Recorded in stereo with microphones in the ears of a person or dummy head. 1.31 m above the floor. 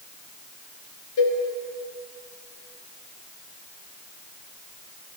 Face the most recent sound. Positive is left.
turn(degrees=60)  # may be behind; listen again after turning